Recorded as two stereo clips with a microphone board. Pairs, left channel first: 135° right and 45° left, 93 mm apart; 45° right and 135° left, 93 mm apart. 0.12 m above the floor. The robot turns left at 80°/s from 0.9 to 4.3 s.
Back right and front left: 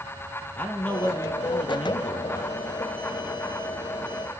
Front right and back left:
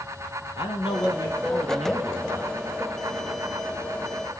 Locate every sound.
0.6 s a man speaking: 60° right, 4 m; by 2.5 s 165° left, 4 m